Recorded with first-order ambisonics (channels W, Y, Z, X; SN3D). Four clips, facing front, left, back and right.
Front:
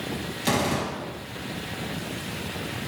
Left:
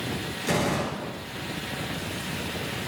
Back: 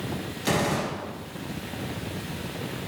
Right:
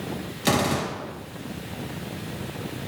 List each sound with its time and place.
0.5 s a gunshot: 85° right, 3 m